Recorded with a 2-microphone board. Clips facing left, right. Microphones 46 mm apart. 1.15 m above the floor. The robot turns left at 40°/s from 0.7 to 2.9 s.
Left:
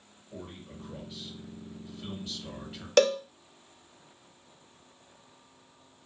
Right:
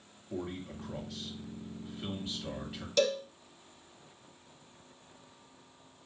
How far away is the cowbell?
About 0.6 m.